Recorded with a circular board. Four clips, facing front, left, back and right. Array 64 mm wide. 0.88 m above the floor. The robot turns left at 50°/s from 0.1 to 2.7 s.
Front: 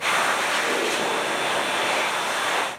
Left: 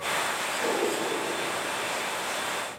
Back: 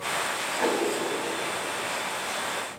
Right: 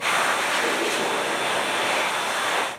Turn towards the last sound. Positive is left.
turn(degrees=85)